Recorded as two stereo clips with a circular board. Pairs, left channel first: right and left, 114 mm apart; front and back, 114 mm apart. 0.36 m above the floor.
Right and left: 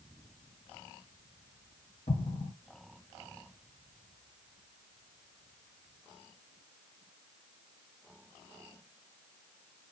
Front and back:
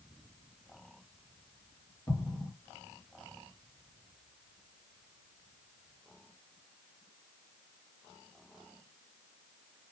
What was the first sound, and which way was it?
An explosion, 70° right.